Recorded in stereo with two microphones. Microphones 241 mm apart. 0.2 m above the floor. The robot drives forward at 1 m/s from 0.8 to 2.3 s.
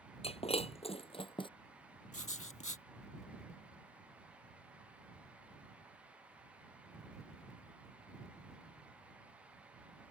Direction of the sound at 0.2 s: 25° left (ahead or behind).